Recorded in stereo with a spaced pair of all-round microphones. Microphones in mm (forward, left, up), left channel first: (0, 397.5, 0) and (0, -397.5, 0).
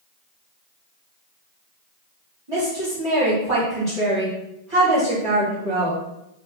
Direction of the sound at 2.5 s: 40° right (ahead or behind).